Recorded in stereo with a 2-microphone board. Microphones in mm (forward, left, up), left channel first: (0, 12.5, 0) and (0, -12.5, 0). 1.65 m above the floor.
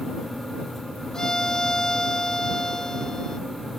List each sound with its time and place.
1.1 s a violin: 20° left (ahead or behind)